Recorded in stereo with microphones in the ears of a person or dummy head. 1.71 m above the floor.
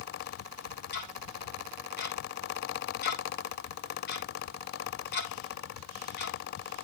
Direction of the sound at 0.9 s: 55° left (ahead or behind).